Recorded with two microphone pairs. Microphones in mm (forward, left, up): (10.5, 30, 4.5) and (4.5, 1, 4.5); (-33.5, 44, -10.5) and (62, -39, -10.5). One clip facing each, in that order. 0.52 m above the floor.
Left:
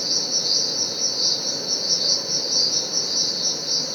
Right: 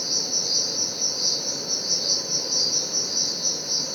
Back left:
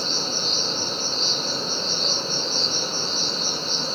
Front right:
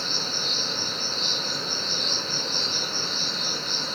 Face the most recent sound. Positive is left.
turn(degrees=85)